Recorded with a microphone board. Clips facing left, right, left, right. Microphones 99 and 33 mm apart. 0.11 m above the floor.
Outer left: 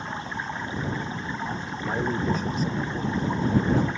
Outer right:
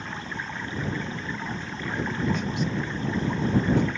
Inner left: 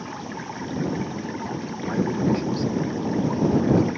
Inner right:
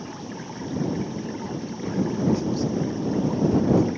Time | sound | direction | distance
0.0 | running water | 20° left (ahead or behind) | ?
1.8 | a man speaking | 40° left (ahead or behind) | ?